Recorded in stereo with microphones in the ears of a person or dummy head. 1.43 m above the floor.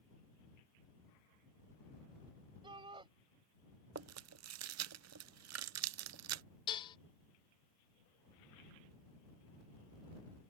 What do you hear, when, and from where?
2.6 s a shout: 30° right (ahead or behind)
4.0 s chewing: 80° right
6.7 s dishes clattering: 25° left (ahead or behind)